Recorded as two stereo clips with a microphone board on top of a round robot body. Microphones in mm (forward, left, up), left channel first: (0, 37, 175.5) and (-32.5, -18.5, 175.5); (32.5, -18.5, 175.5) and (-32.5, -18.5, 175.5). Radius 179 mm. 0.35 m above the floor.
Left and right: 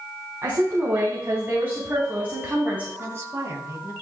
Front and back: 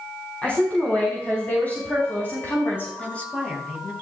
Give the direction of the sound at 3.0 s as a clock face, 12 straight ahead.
2 o'clock.